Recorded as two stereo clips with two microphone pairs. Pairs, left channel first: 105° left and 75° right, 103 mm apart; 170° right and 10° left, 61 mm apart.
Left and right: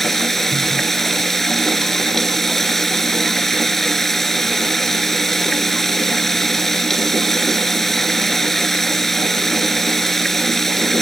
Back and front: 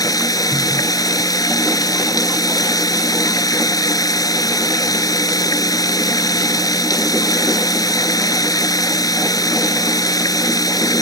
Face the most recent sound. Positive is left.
turn(degrees=-170)